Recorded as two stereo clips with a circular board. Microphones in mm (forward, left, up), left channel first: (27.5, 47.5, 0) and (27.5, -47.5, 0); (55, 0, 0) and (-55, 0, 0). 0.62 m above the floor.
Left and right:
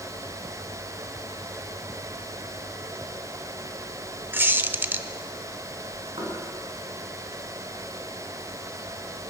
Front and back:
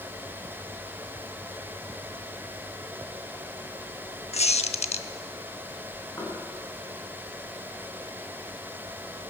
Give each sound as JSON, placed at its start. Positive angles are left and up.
{"t": 4.3, "sound": "a squeak", "azimuth_deg": -20, "distance_m": 0.6}
{"t": 6.2, "sound": "knocking", "azimuth_deg": -60, "distance_m": 6.0}